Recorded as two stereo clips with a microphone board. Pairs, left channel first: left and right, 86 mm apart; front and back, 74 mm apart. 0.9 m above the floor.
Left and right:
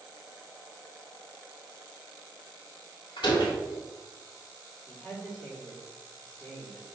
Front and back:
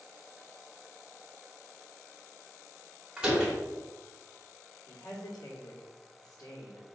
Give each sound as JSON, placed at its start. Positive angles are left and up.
{"t": 3.2, "sound": "a door slam", "azimuth_deg": 100, "distance_m": 2.5}
{"t": 4.9, "sound": "a woman speaking", "azimuth_deg": 20, "distance_m": 3.0}